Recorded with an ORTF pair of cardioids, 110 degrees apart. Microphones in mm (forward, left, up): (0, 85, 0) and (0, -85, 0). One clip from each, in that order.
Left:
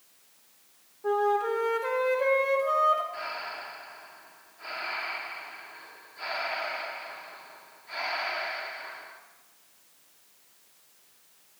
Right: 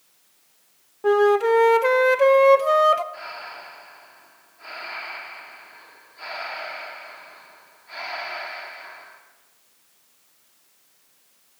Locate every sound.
1.0 s a flute: 55° right, 0.7 m
3.1 s breathing: straight ahead, 1.6 m